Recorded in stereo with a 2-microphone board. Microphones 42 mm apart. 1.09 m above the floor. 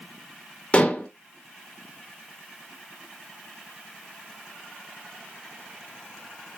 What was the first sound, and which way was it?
Dishes clattering, 30° left (ahead or behind).